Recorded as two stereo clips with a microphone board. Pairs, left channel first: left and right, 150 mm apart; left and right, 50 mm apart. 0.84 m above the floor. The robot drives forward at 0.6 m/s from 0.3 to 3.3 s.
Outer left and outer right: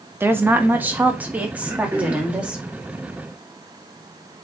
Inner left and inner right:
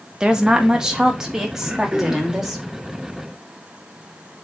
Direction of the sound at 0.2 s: 15° right (ahead or behind).